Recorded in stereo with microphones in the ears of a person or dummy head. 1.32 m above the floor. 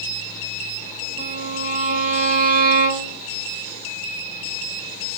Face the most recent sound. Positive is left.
turn(degrees=-45)  # may be behind; listen again after turning